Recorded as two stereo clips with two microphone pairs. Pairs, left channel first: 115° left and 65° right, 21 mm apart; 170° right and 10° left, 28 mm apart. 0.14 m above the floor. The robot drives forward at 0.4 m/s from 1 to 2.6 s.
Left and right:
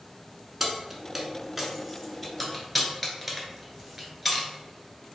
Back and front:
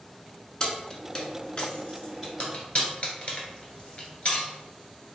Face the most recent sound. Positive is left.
turn(degrees=-160)